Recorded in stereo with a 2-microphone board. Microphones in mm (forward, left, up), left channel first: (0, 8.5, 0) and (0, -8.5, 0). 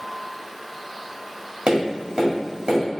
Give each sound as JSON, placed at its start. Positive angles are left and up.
{"t": 1.7, "sound": "tapping", "side_deg": -55, "distance_m": 1.8}